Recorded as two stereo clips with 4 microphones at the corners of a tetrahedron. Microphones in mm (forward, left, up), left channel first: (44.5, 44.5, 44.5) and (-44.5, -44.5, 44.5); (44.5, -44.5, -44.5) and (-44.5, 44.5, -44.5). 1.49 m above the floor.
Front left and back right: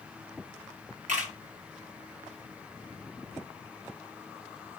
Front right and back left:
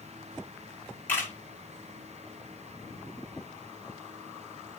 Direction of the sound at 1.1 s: 120° right.